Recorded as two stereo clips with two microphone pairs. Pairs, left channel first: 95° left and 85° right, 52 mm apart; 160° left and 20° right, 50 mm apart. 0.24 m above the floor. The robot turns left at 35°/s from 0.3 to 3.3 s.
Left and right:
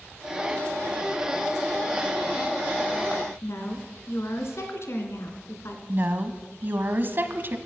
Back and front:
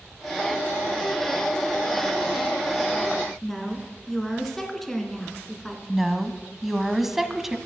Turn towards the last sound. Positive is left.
turn(degrees=-100)